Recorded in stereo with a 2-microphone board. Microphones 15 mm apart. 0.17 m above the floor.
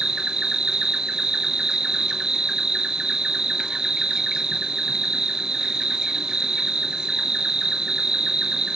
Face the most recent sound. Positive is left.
turn(degrees=-65)  # may be behind; listen again after turning